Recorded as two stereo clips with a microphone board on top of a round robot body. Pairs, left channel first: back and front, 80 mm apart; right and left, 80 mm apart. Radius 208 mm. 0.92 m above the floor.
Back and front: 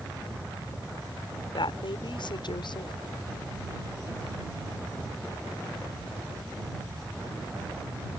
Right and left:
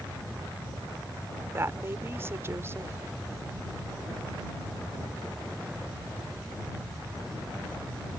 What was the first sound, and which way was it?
A woman speaking, 150° left.